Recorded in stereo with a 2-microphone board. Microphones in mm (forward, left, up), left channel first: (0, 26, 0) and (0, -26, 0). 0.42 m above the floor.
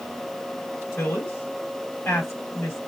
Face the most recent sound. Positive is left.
turn(degrees=45)  # may be behind; listen again after turning